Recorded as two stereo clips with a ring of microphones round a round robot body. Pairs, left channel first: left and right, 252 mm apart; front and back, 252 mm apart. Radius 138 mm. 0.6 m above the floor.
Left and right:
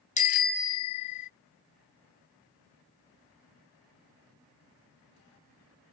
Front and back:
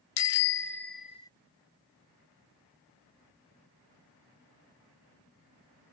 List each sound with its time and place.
0.2 s a bicycle bell: 30° left; by 1.3 s 80° left